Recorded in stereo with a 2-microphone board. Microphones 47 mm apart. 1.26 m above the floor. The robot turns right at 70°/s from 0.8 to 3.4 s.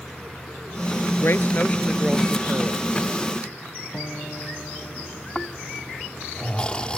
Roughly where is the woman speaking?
Behind left.